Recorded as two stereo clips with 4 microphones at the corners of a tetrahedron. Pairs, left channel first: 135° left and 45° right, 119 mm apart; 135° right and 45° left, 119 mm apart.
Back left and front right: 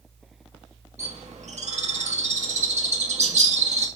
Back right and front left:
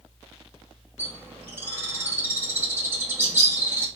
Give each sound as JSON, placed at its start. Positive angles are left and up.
{"t": 1.0, "sound": "a bird", "azimuth_deg": -30, "distance_m": 2.0}